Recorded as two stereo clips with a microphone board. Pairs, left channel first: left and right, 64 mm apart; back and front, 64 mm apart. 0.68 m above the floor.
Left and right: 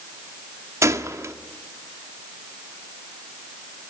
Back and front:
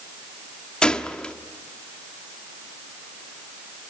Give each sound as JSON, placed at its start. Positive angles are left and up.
{"t": 0.8, "sound": "a gunshot", "azimuth_deg": -110, "distance_m": 1.4}